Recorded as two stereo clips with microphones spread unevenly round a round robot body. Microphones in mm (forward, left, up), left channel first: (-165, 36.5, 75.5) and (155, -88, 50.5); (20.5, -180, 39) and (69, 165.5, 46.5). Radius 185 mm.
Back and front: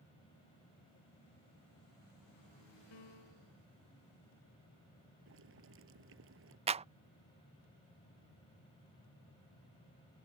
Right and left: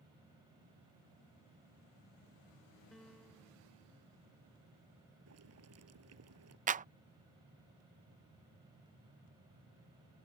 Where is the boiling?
35° left.